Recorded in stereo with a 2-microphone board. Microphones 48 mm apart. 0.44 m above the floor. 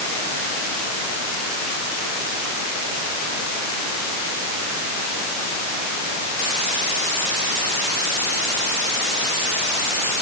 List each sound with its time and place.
Only background noise.